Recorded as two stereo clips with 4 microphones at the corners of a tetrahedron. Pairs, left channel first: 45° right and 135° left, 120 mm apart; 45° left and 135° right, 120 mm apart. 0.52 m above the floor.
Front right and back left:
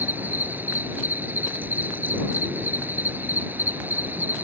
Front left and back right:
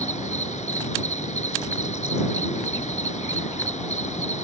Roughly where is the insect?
Ahead left.